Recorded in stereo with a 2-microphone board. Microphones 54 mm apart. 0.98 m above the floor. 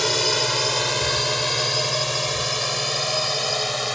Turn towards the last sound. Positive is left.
turn(degrees=0)  # may be behind; listen again after turning